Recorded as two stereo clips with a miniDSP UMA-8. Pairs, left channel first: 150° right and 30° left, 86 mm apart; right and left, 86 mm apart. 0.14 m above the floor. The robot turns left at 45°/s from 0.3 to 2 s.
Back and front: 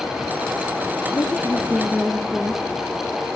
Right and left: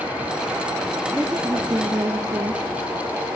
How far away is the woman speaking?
About 1.9 m.